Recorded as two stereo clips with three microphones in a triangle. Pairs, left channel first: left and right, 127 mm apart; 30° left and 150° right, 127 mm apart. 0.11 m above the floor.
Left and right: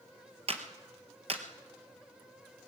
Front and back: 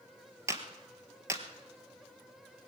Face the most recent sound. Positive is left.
turn(degrees=-90)